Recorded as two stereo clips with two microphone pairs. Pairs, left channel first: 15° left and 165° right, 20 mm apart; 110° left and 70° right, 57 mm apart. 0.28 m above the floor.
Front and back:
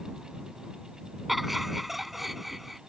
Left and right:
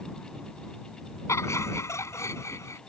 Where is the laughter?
115° left.